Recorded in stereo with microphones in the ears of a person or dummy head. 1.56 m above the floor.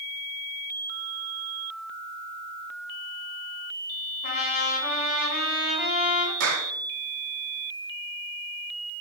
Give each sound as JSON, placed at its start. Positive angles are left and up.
{"t": 4.2, "sound": "a trumpet", "side_deg": 50, "distance_m": 4.0}
{"t": 6.4, "sound": "a clap", "side_deg": -80, "distance_m": 3.0}